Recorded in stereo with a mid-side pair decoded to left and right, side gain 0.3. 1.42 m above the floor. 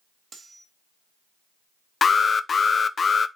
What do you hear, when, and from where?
0.3 s cutlery clinking: 60° right, 1.7 m
2.0 s an alarm: 55° left, 0.6 m